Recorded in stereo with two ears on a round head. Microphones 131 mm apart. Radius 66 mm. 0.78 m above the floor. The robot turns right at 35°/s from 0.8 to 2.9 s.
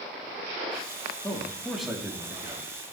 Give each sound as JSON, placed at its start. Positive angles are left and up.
{"t": 1.2, "sound": "a man speaking", "azimuth_deg": 160, "distance_m": 1.9}